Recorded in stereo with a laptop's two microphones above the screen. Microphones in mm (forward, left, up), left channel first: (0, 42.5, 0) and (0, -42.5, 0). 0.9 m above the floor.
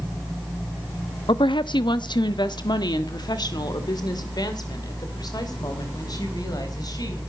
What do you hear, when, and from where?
1.3 s a woman speaking: 70° left (ahead or behind), 0.8 m; by 7.2 s 50° left (ahead or behind), 4 m